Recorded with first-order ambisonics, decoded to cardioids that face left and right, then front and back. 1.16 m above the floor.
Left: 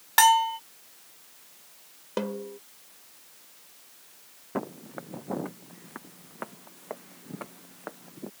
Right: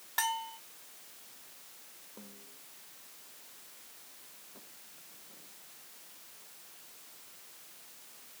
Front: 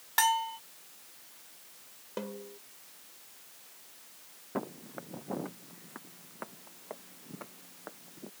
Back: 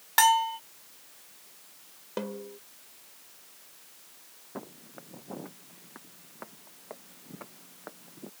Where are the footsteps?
70° left; by 8.3 s 95° left.